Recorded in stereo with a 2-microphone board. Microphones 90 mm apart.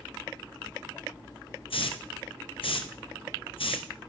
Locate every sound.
1.7 s a hiss: 75° left (ahead or behind), 0.7 m